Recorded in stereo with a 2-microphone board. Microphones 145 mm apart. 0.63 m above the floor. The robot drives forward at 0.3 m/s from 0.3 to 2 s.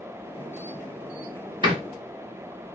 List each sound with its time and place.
1.6 s a door slam: 30° right (ahead or behind), 1.2 m